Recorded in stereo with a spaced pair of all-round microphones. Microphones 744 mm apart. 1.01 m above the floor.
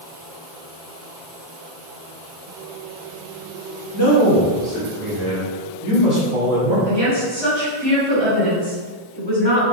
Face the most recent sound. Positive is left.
turn(degrees=-30)  # may be behind; listen again after turning